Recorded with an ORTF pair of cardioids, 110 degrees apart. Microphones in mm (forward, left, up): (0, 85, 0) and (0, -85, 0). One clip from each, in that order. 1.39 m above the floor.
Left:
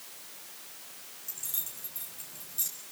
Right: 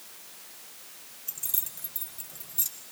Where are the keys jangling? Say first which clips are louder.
Right 2 dB; 25° right, 5 m.